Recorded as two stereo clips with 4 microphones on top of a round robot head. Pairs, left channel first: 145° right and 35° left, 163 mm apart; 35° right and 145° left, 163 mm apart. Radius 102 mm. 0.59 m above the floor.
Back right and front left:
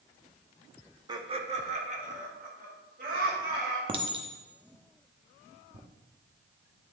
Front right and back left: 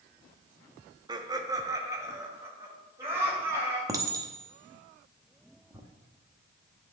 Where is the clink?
80° left, 0.8 m.